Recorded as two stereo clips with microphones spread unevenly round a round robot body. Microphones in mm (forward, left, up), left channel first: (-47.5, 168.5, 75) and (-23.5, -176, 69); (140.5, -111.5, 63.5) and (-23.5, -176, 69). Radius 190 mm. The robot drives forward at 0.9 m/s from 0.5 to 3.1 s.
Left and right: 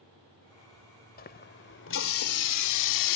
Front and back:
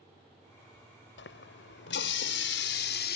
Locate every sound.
1.2 s a running tap: 30° left; by 3.2 s 65° left